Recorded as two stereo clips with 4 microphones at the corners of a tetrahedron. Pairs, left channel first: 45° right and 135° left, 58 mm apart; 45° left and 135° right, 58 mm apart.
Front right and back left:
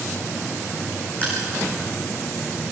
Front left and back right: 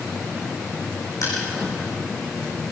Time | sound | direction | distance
1.2 | crushing | 20° left | 8.5 m